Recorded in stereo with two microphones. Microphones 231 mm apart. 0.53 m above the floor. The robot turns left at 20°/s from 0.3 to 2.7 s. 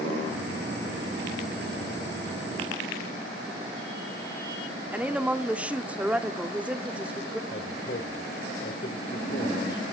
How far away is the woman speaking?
About 1.0 m.